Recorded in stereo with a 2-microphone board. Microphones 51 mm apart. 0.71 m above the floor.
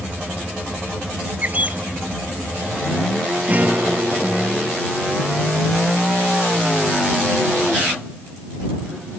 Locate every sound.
1.4 s a bird: 30° right (ahead or behind)
3.5 s a guitar: 30° right (ahead or behind)